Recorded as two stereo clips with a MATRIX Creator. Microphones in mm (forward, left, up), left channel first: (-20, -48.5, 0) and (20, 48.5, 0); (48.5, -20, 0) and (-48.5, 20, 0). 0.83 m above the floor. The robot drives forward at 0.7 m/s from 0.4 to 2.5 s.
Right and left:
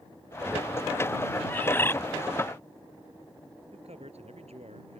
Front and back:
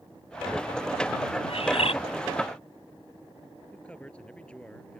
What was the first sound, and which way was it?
A bird, 40° right.